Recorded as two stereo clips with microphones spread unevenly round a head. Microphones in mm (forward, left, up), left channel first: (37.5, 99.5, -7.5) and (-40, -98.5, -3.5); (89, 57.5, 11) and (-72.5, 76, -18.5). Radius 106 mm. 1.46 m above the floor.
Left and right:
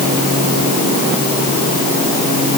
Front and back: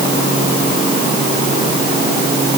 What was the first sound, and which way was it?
Only background noise.